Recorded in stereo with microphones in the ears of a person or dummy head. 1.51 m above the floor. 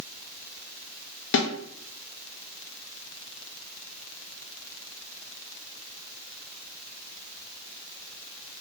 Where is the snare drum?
60° left (ahead or behind), 0.6 m.